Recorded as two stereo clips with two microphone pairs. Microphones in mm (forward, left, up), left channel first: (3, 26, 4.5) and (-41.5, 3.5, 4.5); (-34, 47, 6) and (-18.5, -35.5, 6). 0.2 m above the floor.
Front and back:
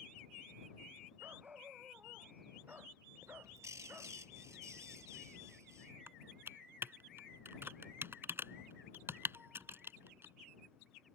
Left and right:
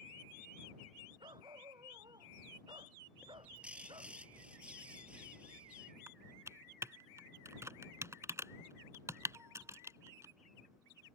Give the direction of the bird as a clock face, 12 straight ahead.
5 o'clock.